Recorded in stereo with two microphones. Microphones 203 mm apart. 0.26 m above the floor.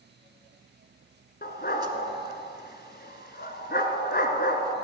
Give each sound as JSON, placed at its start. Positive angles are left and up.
{"t": 1.4, "sound": "a dog barking", "side_deg": 55, "distance_m": 1.2}